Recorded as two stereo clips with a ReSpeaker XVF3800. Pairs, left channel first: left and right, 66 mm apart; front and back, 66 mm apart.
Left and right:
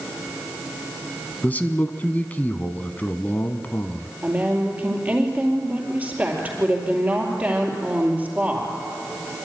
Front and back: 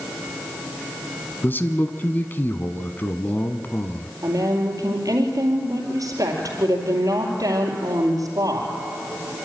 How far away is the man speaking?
About 1.3 m.